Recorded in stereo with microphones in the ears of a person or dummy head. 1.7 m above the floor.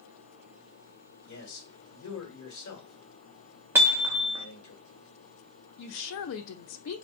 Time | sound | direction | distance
1.3 | a man speaking | 85° left | 1.6 m
3.8 | hammering | 10° right (ahead or behind) | 1.0 m
5.8 | a woman speaking | 75° left (ahead or behind) | 0.6 m